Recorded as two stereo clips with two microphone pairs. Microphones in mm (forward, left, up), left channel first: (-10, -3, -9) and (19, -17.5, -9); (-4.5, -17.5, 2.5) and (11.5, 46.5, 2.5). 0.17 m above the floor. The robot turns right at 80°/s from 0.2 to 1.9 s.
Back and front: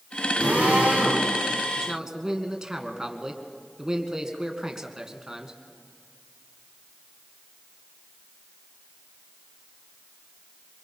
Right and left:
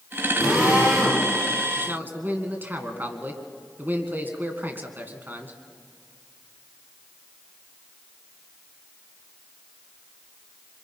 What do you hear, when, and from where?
0.4 s a drill: 10° right, 8 m; by 1.2 s 55° left, 8 m
1.8 s a man speaking: 30° left, 2.0 m; by 5.6 s 40° left, 2.0 m